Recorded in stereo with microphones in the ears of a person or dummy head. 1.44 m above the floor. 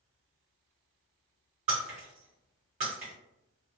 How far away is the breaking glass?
About 0.8 m.